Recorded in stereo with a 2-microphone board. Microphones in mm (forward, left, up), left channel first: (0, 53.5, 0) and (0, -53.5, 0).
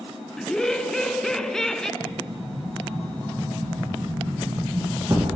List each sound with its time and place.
0.4 s laughter: 5° left (ahead or behind), 1.3 m
2.0 s an explosion: 30° right (ahead or behind), 5.5 m